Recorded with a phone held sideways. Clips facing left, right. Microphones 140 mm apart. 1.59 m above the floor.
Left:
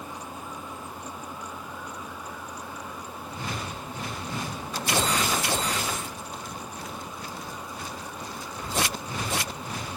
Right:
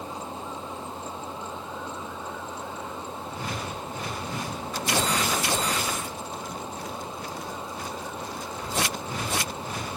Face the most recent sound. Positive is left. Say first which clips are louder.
# right 3 dB
turn(degrees=-25)  # may be behind; listen again after turning